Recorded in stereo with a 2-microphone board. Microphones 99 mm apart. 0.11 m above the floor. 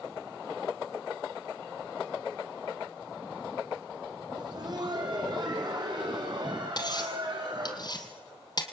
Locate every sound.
4.3 s laughter: 45° right (ahead or behind), 6 m
6.8 s cutlery clinking: 45° left (ahead or behind), 2 m